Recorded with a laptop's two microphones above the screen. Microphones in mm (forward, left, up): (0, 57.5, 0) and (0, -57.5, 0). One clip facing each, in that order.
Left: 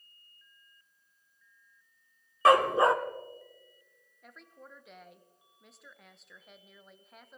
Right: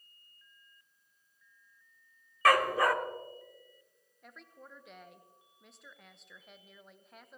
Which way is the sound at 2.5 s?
20° left (ahead or behind).